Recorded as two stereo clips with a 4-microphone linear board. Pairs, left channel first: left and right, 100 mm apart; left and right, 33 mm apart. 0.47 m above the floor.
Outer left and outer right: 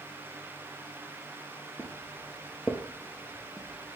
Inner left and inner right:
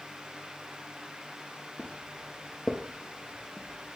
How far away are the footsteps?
About 0.9 m.